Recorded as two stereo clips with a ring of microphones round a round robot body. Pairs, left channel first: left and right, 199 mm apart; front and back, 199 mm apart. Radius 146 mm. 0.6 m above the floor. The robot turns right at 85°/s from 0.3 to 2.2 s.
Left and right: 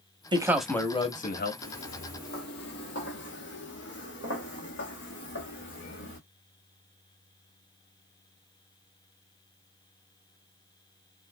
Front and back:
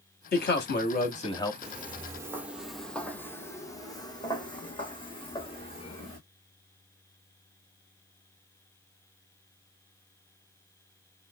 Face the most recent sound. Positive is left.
turn(degrees=60)